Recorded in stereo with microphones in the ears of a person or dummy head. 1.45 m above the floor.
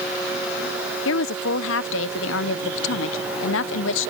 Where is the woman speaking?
70° left (ahead or behind).